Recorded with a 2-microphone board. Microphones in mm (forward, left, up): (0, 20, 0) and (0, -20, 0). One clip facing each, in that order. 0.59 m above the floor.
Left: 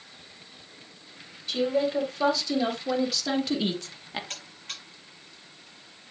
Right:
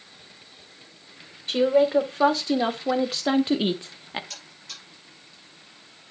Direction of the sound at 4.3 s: 45° left (ahead or behind).